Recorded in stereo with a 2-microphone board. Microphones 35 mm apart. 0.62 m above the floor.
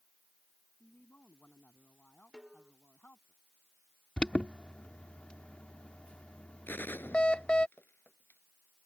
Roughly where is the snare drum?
Right.